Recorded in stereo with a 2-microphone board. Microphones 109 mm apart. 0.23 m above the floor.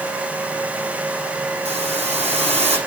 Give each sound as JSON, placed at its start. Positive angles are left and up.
{"t": 1.6, "sound": "a hiss", "side_deg": -85, "distance_m": 7.5}